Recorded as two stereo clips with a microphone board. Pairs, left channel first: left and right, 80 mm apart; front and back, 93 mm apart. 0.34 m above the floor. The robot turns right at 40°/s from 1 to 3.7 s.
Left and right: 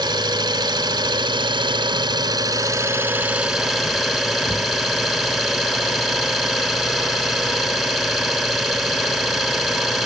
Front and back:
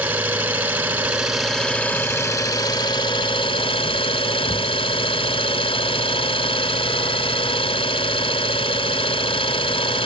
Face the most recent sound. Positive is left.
turn(degrees=0)